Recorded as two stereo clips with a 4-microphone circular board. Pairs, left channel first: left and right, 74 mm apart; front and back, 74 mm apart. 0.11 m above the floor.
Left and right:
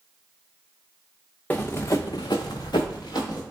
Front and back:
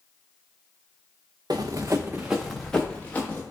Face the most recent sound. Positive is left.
turn(degrees=65)